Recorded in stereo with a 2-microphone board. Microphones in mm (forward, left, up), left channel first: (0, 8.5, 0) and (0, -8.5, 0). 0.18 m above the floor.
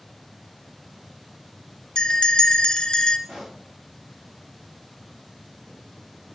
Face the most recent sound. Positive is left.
turn(degrees=-70)  # may be behind; listen again after turning